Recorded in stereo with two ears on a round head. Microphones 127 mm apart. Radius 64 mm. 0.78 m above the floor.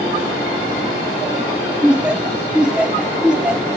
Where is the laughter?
5° right (ahead or behind), 0.5 m.